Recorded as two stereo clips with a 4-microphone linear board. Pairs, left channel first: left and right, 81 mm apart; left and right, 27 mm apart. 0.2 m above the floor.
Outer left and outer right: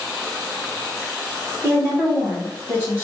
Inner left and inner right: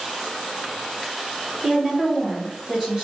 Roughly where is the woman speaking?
Right.